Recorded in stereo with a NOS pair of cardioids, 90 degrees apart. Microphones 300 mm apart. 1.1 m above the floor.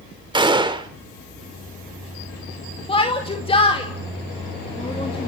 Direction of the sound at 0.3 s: 15° right.